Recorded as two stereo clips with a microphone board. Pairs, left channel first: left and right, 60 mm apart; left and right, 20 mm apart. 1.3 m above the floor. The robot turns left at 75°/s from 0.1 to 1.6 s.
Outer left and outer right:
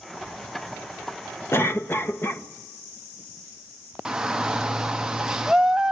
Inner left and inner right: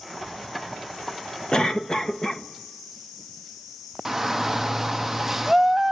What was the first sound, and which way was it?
A cough, 45° left (ahead or behind).